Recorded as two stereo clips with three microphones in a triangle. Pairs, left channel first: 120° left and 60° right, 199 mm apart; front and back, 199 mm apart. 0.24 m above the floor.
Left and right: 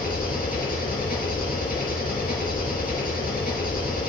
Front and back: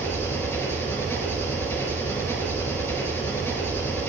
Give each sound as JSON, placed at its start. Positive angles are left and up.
{"t": 0.0, "sound": "an engine running", "azimuth_deg": 75, "distance_m": 4.0}